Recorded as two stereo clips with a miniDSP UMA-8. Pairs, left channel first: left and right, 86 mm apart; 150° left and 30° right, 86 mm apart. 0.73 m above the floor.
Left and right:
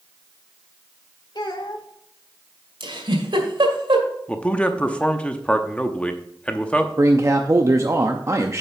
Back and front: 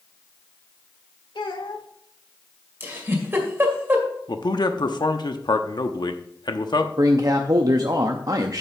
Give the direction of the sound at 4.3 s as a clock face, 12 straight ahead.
7 o'clock.